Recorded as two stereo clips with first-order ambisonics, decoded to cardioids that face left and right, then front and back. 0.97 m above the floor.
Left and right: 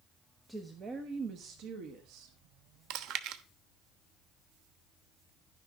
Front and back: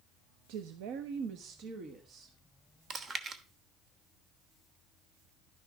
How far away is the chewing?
About 1.0 m.